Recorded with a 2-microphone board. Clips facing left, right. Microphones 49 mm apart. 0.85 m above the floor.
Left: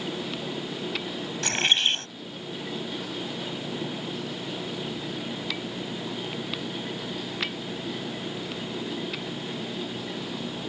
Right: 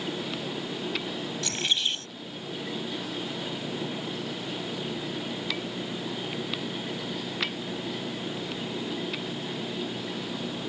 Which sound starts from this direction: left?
A bird, at 1.4 s.